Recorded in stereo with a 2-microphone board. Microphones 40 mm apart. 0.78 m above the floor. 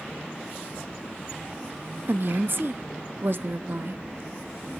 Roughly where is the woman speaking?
Right.